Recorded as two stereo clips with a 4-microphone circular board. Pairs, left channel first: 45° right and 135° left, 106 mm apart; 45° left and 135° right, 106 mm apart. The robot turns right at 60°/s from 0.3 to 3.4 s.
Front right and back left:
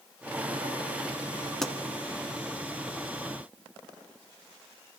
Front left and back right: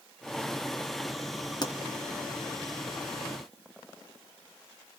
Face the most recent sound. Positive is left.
turn(degrees=145)